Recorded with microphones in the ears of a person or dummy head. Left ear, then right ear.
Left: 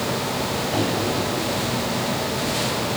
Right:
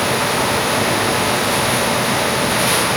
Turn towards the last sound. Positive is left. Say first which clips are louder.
# right 5 dB
turn(degrees=30)  # may be behind; listen again after turning